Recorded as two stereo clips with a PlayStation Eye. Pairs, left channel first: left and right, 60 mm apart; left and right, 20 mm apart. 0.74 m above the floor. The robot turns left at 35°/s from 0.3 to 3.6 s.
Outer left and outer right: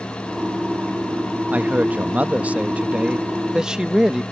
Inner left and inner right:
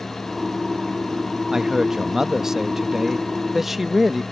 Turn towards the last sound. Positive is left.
turn(degrees=-10)  # may be behind; listen again after turning